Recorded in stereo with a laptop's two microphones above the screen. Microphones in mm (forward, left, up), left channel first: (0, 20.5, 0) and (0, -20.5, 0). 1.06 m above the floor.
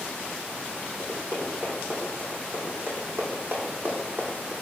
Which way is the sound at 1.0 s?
60° right (ahead or behind).